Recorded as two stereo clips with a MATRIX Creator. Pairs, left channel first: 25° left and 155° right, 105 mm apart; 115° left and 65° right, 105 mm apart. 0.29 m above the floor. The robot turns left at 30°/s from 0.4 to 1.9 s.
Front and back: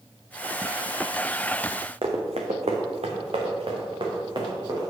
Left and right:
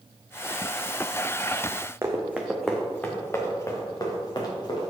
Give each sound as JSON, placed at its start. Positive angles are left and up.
{"t": 2.0, "sound": "running footsteps", "azimuth_deg": -130, "distance_m": 1.3}